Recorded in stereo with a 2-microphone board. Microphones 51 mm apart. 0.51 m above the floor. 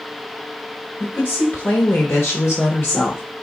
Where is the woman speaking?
40° left (ahead or behind), 1.6 m; by 3.2 s 45° left (ahead or behind), 1.2 m.